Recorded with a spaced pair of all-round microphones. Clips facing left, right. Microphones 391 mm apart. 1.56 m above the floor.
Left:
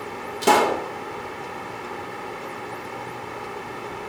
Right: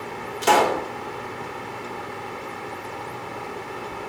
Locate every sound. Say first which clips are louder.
0.4 s a pop: left 1 dB; 60° left (ahead or behind), 1.2 m